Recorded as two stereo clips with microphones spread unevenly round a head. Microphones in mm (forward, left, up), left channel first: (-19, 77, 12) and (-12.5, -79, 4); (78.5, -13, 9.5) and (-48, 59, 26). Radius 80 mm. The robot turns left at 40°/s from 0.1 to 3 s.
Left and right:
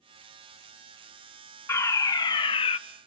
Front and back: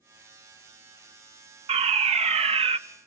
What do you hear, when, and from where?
1.7 s a fire alarm: 160° left, 1.2 m; by 2.8 s 120° left, 1.2 m